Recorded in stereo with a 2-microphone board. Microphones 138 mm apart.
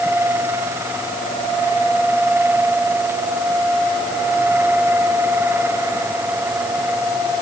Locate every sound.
Only background noise.